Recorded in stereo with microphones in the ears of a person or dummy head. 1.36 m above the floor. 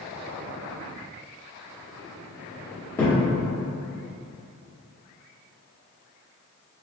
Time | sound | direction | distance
3.0 | a thud | 15° left (ahead or behind) | 1.0 m